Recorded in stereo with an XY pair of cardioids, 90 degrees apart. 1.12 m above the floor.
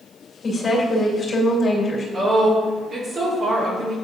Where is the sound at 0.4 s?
45° left, 2.5 m.